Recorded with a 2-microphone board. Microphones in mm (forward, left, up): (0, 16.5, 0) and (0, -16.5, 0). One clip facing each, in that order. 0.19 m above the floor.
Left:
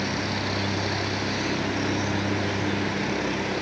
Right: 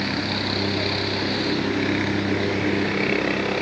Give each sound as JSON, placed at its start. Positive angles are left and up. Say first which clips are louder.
{"t": 0.0, "sound": "a helicopter", "louder": "right 3 dB", "side_deg": -40}